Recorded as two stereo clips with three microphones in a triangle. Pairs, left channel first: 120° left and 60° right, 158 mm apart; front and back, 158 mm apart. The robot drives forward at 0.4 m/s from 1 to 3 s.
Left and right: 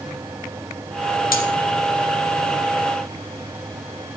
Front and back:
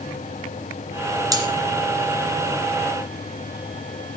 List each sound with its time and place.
1.3 s cutlery clinking: 115° left, 2.5 m